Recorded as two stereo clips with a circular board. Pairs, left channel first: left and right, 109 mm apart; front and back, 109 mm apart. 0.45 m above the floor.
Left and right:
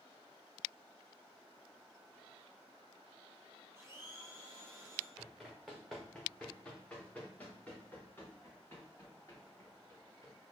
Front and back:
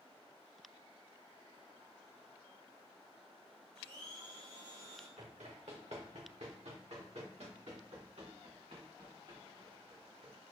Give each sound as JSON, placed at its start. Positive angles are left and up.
{"t": 3.8, "sound": "a blender", "azimuth_deg": -160, "distance_m": 4.0}
{"t": 5.2, "sound": "running footsteps", "azimuth_deg": -175, "distance_m": 2.5}